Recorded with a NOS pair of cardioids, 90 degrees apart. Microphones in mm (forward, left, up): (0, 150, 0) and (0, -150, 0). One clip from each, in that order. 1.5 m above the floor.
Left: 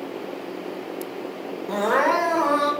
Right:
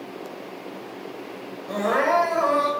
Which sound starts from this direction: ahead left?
Crying, at 1.7 s.